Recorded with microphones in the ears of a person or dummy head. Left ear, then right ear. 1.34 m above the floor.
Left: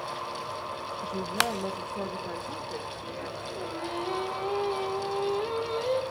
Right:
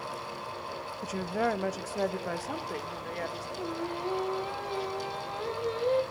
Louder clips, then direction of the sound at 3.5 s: Left 2 dB; 5° left (ahead or behind).